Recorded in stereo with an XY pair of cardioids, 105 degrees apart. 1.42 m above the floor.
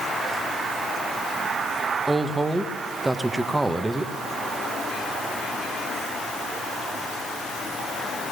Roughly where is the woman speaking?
Ahead.